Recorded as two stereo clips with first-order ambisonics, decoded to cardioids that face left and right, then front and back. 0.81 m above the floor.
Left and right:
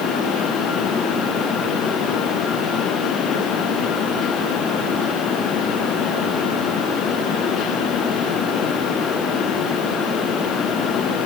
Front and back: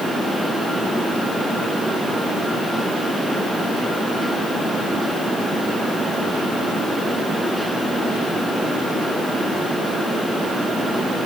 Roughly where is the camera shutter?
I don't hear a camera shutter.